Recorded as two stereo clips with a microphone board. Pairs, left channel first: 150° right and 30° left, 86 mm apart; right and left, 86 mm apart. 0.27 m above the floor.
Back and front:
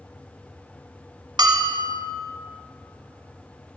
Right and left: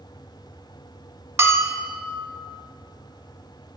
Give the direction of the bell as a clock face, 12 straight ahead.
11 o'clock.